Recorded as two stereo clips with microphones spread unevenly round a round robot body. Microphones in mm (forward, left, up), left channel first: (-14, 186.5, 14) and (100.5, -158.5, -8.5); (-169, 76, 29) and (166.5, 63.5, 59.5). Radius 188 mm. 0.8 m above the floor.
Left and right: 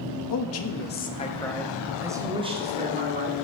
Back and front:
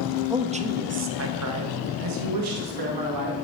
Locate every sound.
0.3 s a man speaking: 80° left, 1.0 m; by 3.4 s 10° right, 1.8 m